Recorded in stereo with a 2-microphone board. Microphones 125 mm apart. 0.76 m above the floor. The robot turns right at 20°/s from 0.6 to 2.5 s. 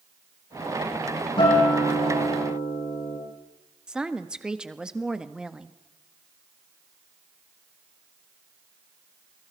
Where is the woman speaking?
5° right (ahead or behind), 1.2 m.